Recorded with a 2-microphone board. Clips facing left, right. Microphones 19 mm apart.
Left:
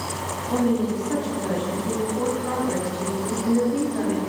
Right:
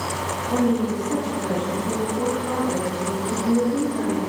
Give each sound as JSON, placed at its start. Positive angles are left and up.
{"t": 0.5, "sound": "a woman speaking", "side_deg": 25, "distance_m": 2.5}